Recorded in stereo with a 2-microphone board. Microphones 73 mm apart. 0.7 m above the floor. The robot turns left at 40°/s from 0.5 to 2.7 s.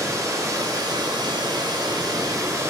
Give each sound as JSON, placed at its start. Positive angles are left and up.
{"t": 0.0, "sound": "running water", "azimuth_deg": -55, "distance_m": 0.9}